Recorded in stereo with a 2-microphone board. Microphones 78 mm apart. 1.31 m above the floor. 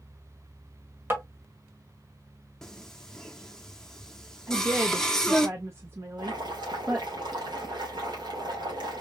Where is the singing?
5° left (ahead or behind), 0.8 m.